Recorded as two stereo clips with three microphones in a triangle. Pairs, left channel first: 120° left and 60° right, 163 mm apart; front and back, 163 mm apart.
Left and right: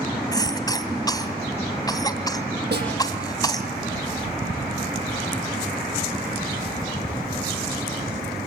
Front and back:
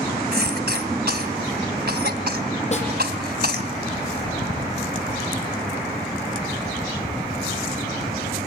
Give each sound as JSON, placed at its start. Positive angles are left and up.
{"t": 0.3, "sound": "a cough", "azimuth_deg": -175, "distance_m": 2.5}
{"t": 2.7, "sound": "a snare drum", "azimuth_deg": -50, "distance_m": 8.0}